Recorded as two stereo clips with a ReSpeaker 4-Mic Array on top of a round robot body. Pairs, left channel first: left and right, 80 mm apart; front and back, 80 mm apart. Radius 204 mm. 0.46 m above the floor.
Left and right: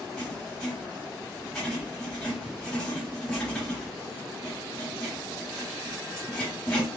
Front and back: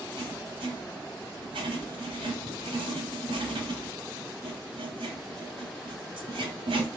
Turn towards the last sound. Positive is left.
turn(degrees=175)